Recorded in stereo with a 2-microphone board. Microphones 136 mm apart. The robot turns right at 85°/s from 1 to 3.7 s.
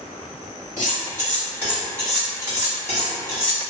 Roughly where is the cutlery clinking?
Left.